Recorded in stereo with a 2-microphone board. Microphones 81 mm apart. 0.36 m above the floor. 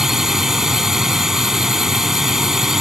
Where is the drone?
5° right (ahead or behind).